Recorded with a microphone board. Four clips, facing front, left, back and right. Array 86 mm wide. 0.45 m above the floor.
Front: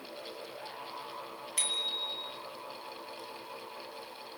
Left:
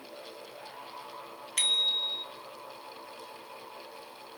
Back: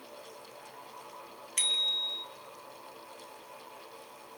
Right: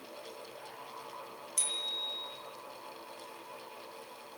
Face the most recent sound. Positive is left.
turn(degrees=100)